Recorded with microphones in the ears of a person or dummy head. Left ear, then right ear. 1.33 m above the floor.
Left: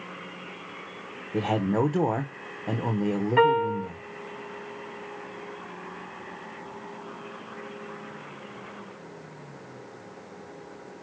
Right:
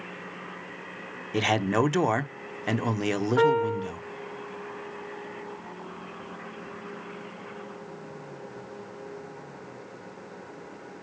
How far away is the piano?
About 2.5 m.